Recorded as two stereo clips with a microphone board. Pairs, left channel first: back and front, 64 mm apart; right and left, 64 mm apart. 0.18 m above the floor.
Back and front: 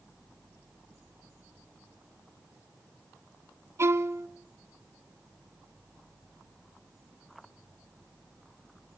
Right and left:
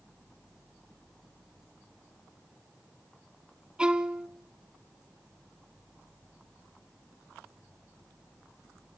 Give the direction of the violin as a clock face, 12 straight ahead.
11 o'clock.